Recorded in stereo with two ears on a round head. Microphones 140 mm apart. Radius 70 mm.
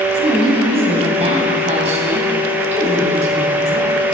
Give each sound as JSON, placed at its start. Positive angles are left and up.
{"t": 0.2, "sound": "a woman speaking", "side_deg": -40, "distance_m": 3.5}